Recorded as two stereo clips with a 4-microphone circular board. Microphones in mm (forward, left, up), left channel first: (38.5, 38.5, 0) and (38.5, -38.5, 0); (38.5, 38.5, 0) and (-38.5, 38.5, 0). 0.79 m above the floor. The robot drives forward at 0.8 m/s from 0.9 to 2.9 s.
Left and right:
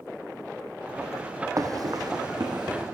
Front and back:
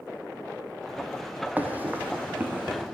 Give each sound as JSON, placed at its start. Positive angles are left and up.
{"t": 1.6, "sound": "running footsteps", "azimuth_deg": -120, "distance_m": 1.5}